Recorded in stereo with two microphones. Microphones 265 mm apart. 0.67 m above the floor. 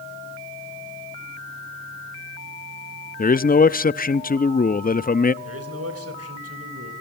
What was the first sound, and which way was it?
A man speaking, 35° left (ahead or behind).